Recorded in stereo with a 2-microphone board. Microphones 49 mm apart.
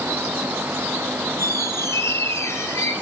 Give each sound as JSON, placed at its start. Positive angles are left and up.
{"t": 1.4, "sound": "a squeak", "side_deg": 80, "distance_m": 5.5}